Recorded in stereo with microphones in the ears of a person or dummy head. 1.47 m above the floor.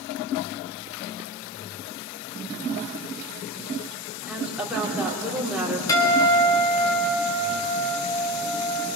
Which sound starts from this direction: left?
A guitar, at 5.9 s.